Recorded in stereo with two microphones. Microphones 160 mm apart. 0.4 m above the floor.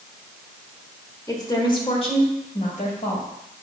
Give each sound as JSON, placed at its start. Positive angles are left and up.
{"t": 1.3, "sound": "a woman speaking", "side_deg": 20, "distance_m": 1.5}